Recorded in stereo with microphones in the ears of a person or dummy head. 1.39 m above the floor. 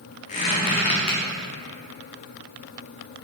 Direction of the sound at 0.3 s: 40° left (ahead or behind).